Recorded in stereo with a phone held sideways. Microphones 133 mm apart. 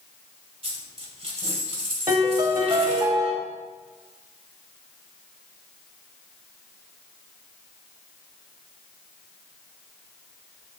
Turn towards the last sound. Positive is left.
turn(degrees=-35)  # may be behind; listen again after turning